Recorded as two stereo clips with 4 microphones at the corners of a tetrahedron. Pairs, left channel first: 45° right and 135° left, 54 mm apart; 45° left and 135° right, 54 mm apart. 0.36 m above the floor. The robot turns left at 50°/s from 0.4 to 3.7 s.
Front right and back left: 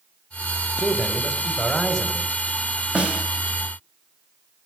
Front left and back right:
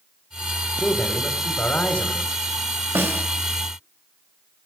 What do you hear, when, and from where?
0.8 s a man speaking: 75° left, 1.2 m; by 2.4 s 5° right, 1.2 m
3.0 s a snare drum: 160° right, 1.6 m; by 3.2 s 175° right, 1.6 m